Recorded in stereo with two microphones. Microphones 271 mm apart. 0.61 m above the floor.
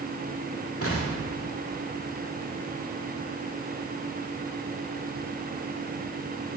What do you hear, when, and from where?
0.8 s an explosion: 55° left (ahead or behind), 1.8 m